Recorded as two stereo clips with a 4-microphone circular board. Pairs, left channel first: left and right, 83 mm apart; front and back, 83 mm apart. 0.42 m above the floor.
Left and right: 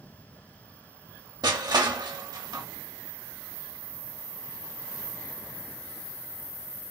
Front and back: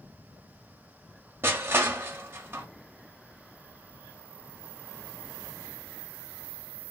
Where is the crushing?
120° right, 0.7 m.